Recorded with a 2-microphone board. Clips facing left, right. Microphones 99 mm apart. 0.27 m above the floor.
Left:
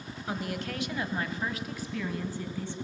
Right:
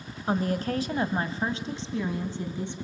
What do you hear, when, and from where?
0.3 s a woman speaking: 40° right (ahead or behind), 1.3 m; by 2.7 s 20° right (ahead or behind), 2.5 m